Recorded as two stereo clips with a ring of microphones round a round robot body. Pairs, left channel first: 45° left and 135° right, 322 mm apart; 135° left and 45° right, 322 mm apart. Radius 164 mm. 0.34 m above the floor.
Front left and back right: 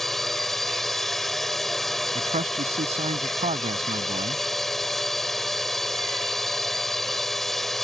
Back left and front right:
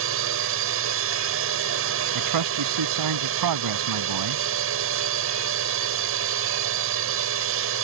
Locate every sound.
0.0 s a drone: 45° right
2.1 s a man speaking: 65° right